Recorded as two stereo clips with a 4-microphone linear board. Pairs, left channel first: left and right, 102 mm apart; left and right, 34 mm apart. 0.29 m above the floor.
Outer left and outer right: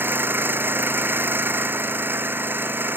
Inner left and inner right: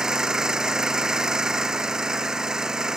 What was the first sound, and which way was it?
An engine running, 20° right (ahead or behind).